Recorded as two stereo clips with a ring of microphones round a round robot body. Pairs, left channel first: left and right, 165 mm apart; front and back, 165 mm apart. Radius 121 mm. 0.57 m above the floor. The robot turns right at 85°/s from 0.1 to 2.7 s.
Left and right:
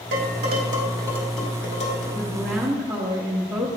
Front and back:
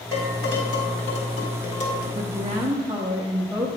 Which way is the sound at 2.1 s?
160° left.